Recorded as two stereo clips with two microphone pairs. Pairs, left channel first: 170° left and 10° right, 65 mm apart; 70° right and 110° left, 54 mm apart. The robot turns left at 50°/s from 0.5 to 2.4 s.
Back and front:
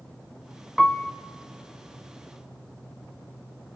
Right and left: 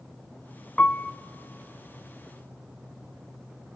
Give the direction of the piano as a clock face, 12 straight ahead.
4 o'clock.